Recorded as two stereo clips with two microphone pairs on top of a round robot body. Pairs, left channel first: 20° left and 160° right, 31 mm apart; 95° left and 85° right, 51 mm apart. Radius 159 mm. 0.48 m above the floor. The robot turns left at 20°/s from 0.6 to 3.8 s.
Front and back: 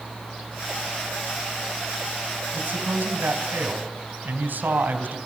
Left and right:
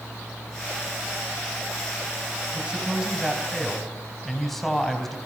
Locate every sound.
2.5 s a man speaking: 150° right, 4 m; by 5.2 s 175° right, 4 m